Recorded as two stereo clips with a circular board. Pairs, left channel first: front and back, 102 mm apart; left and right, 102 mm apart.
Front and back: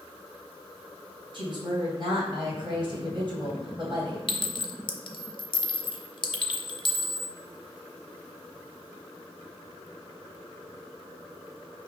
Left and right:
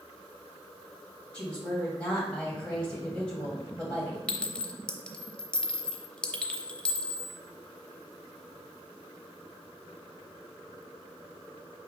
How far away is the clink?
About 0.6 m.